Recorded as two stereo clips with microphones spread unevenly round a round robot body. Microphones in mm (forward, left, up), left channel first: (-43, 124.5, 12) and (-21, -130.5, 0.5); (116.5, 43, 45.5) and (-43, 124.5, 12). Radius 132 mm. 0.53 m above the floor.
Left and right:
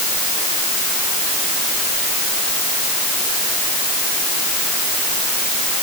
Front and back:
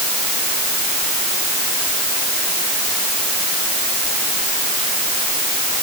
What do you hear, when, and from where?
Only background noise.